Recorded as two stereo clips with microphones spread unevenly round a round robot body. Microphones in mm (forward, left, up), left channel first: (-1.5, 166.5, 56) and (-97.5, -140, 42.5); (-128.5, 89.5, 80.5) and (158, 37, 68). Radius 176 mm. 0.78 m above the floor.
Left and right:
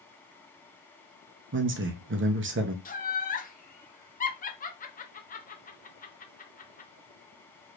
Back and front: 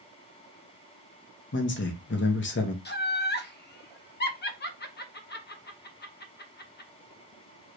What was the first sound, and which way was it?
A man speaking, 150° right.